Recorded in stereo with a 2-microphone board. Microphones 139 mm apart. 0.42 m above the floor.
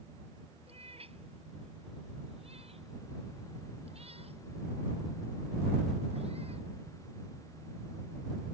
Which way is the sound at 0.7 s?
45° right (ahead or behind).